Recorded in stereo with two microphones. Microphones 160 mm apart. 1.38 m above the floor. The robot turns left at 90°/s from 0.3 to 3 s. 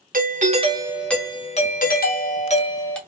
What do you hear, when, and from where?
0.1 s a doorbell: 110° right, 0.5 m; by 3.0 s 5° left, 0.5 m